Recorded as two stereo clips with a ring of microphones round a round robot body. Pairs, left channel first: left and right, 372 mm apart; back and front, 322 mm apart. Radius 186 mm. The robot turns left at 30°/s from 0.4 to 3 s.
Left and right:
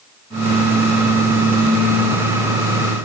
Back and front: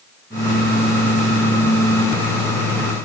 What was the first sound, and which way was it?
Only background noise.